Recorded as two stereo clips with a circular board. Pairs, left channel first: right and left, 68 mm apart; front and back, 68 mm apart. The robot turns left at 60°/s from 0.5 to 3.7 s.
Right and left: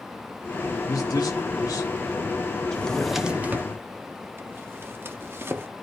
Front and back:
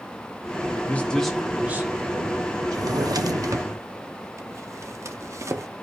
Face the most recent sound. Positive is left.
turn(degrees=140)